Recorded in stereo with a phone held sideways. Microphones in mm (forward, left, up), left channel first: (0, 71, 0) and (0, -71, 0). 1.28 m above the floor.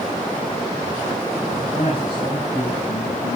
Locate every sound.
1.6 s a man speaking: 45° left (ahead or behind), 6.5 m; by 3.4 s 55° left (ahead or behind), 8.5 m